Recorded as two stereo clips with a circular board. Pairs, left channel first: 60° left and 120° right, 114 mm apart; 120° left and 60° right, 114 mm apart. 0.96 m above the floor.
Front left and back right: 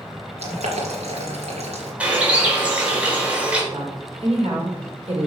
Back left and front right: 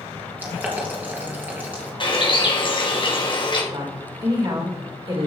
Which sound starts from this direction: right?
A woman speaking, at 3.7 s.